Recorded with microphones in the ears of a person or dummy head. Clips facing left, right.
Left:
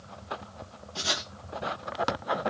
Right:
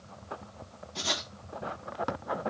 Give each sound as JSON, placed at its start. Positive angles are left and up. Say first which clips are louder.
{"t": 0.9, "sound": "writing", "louder": "left 1 dB", "side_deg": 5, "distance_m": 0.7}